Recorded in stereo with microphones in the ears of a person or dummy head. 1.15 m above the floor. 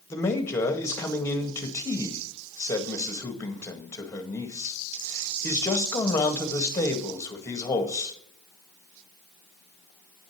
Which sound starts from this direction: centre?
A man speaking, at 0.1 s.